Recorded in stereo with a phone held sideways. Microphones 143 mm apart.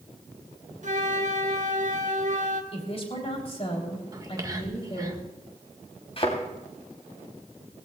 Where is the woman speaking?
45° left (ahead or behind), 3.5 m.